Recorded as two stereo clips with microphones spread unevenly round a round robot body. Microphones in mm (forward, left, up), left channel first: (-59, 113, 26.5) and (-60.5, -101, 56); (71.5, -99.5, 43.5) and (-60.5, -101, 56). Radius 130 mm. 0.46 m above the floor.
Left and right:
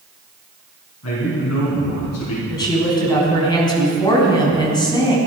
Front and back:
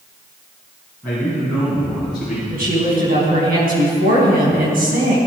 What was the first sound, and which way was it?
A man speaking, 85° left.